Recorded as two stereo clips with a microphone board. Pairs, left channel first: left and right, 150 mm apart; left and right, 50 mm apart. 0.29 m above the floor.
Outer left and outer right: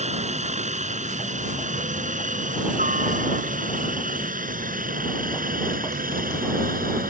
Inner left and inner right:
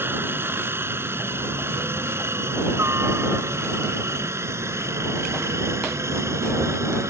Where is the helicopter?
50° right (ahead or behind); by 7.1 s 70° right (ahead or behind).